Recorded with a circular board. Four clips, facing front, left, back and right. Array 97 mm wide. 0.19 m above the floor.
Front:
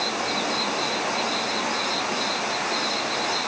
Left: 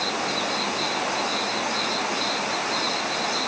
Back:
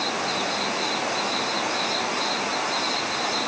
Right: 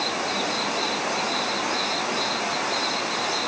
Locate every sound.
Only background noise.